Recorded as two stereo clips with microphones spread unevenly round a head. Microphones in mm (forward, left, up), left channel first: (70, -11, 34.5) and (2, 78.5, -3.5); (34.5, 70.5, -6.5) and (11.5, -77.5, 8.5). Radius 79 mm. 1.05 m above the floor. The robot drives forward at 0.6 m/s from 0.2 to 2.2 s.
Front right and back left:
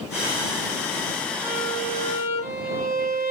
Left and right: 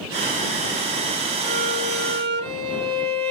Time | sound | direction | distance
1.4 | a violin | 125° right | 1.1 m